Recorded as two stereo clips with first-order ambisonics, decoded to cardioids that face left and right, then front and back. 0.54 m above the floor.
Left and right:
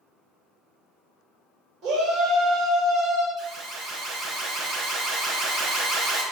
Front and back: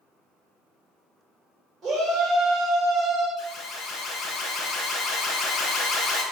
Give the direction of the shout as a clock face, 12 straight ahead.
4 o'clock.